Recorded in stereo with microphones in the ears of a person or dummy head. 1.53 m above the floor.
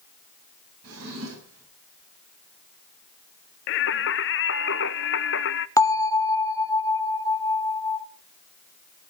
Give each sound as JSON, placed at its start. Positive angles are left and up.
{"t": 0.8, "sound": "a drawer", "side_deg": -80, "distance_m": 7.5}
{"t": 3.7, "sound": "singing", "side_deg": 60, "distance_m": 0.6}
{"t": 5.8, "sound": "a bell", "side_deg": 15, "distance_m": 1.0}